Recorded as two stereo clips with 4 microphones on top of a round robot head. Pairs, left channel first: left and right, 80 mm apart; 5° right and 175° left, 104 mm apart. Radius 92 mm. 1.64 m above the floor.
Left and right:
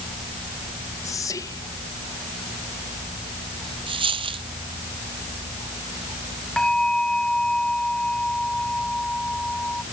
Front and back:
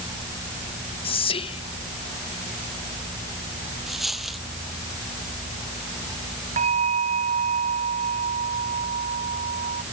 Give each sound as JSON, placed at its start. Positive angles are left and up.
{"t": 1.0, "sound": "whispering", "azimuth_deg": 30}
{"t": 3.9, "sound": "a dropped coin", "azimuth_deg": -95}
{"t": 6.6, "sound": "a bell", "azimuth_deg": 170}